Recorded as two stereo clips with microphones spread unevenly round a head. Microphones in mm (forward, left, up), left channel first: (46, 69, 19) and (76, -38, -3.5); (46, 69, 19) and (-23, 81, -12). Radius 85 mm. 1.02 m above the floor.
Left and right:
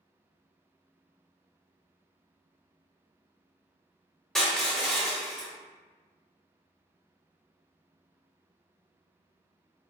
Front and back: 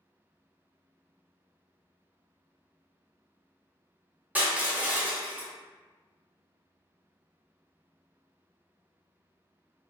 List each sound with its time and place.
4.3 s crushing: 70° left, 0.7 m